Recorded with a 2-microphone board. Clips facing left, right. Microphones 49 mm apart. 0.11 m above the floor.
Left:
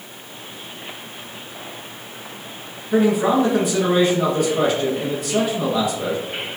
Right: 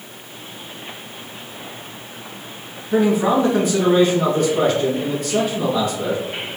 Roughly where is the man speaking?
Centre.